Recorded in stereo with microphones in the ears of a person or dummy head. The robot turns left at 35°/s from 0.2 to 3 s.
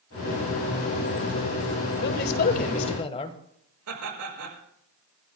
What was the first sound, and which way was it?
A man speaking, 65° left.